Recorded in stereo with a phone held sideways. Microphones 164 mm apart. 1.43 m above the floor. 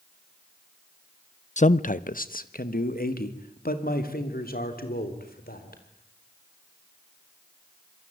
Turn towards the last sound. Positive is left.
turn(degrees=65)  # may be behind; listen again after turning